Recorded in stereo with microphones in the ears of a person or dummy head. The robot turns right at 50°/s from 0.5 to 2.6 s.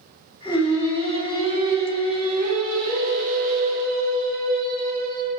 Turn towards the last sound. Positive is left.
turn(degrees=-70)